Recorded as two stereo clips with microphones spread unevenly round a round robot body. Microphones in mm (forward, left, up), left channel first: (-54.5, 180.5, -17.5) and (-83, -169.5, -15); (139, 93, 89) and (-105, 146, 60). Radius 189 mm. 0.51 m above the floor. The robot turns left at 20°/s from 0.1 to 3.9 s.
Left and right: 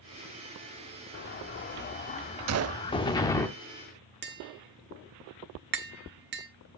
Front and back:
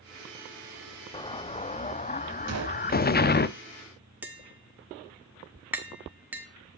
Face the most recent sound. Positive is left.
turn(degrees=-125)